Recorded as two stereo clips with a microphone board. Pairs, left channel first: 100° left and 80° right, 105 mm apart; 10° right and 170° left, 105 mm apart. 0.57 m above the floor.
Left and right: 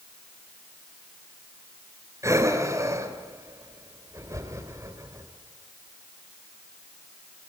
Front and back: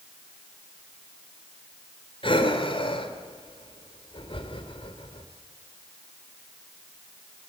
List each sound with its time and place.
2.2 s breathing: 25° right, 3 m